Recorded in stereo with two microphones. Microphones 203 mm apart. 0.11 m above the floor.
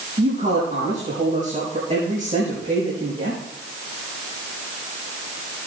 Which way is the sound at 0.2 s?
40° right (ahead or behind).